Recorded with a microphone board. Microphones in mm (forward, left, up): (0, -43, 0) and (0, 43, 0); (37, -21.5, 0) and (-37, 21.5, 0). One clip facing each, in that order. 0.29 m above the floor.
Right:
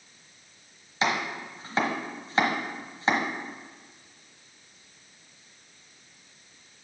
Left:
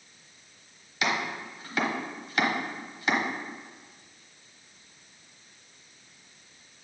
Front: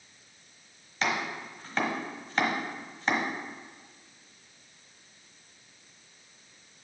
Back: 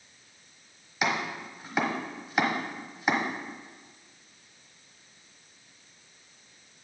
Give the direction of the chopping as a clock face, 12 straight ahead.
5 o'clock.